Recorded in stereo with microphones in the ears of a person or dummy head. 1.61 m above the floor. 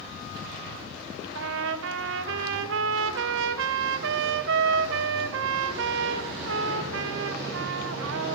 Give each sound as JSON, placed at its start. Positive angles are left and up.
{"t": 1.4, "sound": "a trumpet", "side_deg": -75, "distance_m": 0.7}